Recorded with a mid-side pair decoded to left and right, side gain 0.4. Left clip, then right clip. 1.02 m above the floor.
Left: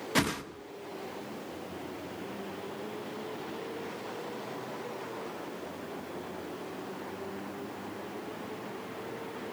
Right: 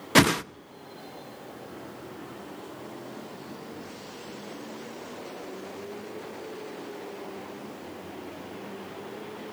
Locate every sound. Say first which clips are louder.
0.1 s a whoosh: right 10 dB; 65° right, 0.7 m